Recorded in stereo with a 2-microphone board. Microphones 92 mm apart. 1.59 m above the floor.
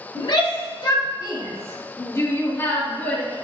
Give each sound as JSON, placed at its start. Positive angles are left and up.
{"t": 0.1, "sound": "a shout", "side_deg": 65, "distance_m": 3.0}